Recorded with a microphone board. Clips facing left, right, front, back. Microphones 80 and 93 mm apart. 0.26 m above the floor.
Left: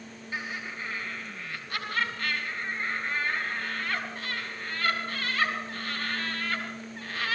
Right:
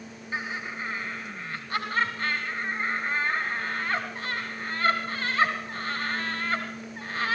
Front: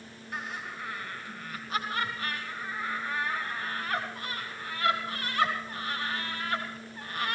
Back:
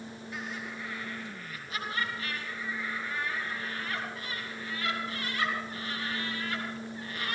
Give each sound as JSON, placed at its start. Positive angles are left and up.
{"t": 0.3, "sound": "laughter", "azimuth_deg": -45, "distance_m": 3.0}